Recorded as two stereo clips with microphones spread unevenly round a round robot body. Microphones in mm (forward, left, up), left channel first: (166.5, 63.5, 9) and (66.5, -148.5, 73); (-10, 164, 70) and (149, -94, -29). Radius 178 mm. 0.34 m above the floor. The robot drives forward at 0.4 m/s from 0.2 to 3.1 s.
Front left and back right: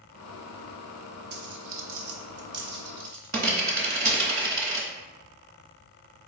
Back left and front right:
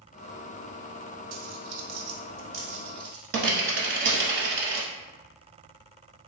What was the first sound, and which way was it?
A dropped coin, 70° right.